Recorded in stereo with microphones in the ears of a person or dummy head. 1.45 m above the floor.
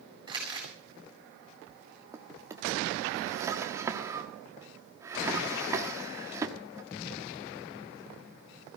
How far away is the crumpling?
About 8 m.